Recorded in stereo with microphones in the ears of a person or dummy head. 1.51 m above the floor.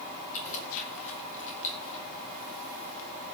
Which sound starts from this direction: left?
Keys jangling, at 0.3 s.